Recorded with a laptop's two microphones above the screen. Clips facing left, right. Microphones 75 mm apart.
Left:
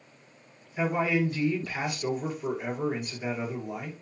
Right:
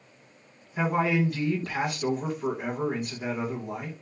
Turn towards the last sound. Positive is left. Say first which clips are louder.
# right 1 dB
turn(degrees=-60)  # may be behind; listen again after turning